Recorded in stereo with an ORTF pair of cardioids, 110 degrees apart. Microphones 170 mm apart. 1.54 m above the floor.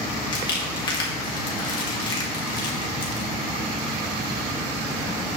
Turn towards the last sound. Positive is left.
turn(degrees=25)